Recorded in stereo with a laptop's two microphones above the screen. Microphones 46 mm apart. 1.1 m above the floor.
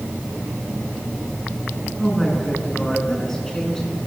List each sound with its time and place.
2.0 s a woman speaking: 10° left (ahead or behind), 10 m